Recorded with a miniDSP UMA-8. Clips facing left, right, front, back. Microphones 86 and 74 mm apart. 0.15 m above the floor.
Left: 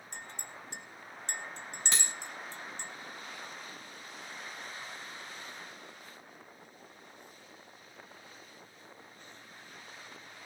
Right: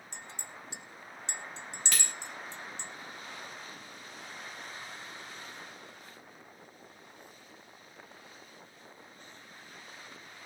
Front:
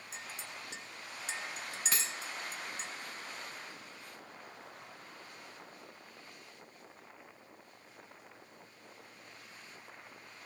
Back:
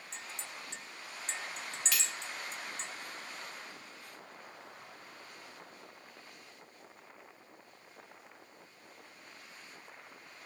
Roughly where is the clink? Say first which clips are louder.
Left 1 dB, even; left.